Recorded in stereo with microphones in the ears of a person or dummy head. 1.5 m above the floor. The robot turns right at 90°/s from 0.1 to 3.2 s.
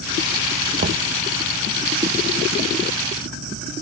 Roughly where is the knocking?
Right.